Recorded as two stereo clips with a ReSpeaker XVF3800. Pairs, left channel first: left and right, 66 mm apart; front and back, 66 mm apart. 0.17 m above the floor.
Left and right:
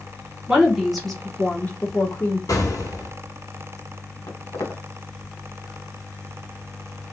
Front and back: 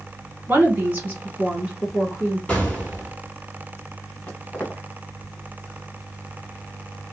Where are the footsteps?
65° left, 1.4 m.